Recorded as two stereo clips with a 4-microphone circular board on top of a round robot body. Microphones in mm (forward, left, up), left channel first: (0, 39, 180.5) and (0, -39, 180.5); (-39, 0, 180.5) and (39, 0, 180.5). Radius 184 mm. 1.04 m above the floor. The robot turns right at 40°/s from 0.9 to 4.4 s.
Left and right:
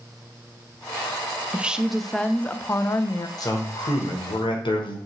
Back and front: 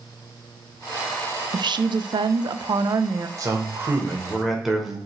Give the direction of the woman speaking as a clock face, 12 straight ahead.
1 o'clock.